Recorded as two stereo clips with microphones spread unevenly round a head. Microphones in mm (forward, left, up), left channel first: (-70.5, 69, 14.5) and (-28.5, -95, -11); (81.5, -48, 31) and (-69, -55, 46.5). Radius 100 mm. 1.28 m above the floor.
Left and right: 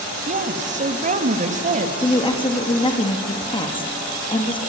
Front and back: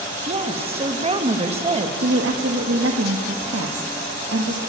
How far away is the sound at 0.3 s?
About 2 m.